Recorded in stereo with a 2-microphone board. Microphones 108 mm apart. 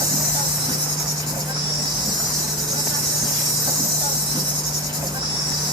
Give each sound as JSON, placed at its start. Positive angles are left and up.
{"t": 0.0, "sound": "an insect", "side_deg": -50, "distance_m": 1.2}